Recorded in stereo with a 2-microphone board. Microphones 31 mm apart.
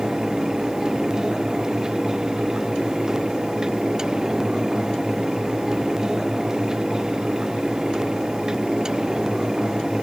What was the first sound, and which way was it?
Only background noise.